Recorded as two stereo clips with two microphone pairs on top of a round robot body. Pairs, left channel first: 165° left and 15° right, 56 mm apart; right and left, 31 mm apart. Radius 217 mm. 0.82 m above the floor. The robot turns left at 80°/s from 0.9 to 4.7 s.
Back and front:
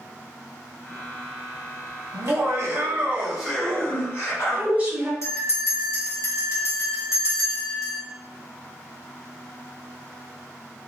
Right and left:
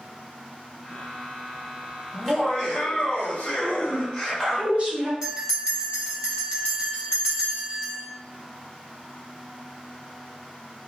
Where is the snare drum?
I don't hear a snare drum.